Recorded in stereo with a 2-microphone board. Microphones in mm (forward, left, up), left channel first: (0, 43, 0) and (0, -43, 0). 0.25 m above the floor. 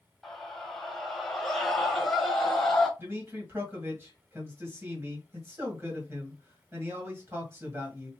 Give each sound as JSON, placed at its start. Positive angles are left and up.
{"t": 0.2, "sound": "a scream", "side_deg": 0, "distance_m": 1.3}
{"t": 3.0, "sound": "a man speaking", "side_deg": -30, "distance_m": 1.7}